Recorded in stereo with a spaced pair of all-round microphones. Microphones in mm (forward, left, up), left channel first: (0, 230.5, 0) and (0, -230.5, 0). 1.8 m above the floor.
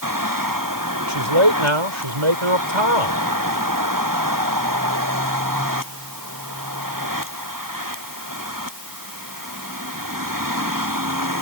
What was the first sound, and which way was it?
A man speaking, 85° right.